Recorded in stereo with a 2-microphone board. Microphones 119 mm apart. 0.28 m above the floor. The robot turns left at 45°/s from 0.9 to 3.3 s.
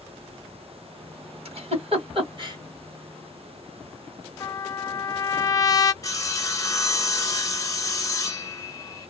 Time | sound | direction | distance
1.4 | a giggle | 55° right (ahead or behind) | 1.8 m
4.4 | a trumpet | 30° left (ahead or behind) | 0.6 m
6.0 | sawing | 30° left (ahead or behind) | 1.1 m